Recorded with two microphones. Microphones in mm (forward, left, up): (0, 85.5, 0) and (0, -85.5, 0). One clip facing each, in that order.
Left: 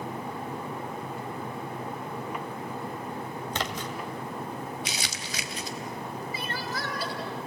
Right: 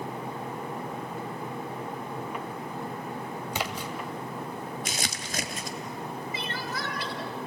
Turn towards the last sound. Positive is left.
turn(degrees=40)  # may be behind; listen again after turning